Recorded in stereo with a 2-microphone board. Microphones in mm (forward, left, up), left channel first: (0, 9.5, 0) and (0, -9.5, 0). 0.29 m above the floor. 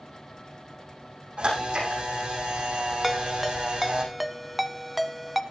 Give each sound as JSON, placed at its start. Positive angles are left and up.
{"t": 1.4, "sound": "a camera shutter", "side_deg": -75, "distance_m": 9.5}
{"t": 3.0, "sound": "a ringtone", "side_deg": 0, "distance_m": 0.9}